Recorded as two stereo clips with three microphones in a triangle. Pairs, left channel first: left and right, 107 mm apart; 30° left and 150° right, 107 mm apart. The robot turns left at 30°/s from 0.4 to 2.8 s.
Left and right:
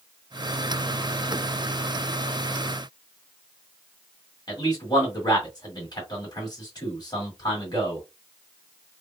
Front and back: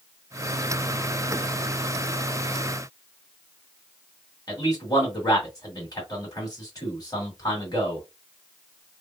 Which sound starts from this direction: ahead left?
A man speaking, at 4.5 s.